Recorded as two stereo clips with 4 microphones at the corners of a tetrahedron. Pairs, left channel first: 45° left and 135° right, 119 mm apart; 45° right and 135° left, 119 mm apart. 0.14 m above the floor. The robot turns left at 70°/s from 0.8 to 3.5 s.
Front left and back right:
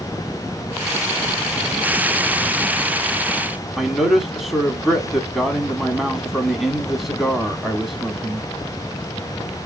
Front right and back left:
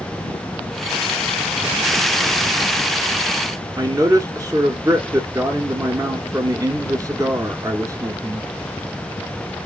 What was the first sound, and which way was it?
A man speaking, 140° left.